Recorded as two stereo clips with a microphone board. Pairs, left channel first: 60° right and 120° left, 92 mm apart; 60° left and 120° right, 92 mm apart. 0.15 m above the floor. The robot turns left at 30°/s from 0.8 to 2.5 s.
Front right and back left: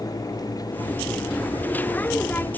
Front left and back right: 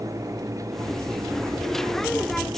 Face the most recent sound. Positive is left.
No sound to turn to.